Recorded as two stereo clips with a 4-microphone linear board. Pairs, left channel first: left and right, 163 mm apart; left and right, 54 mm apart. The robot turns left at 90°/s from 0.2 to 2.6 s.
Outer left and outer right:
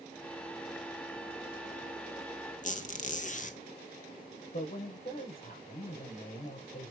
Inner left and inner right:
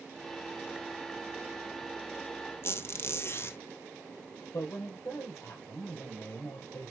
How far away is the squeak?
About 1.5 m.